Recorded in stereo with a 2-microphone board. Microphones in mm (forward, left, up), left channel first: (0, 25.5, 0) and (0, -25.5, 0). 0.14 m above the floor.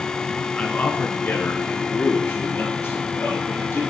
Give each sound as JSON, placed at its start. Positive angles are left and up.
{"t": 0.6, "sound": "a man speaking", "side_deg": 25, "distance_m": 1.1}